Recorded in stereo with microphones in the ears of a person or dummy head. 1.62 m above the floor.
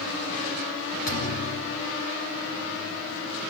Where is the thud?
45° left (ahead or behind), 2 m.